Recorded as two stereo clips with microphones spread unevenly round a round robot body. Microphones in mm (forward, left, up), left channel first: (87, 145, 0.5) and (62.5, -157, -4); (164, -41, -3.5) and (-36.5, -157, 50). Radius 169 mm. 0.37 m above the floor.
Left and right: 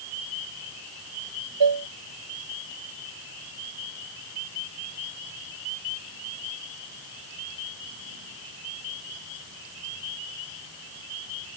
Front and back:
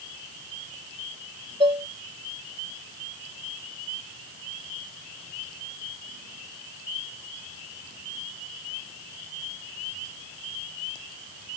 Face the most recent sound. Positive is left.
turn(degrees=-80)